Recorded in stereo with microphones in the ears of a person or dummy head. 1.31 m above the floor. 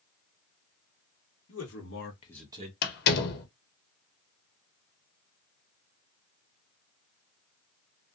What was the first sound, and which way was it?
A man speaking, 70° left (ahead or behind).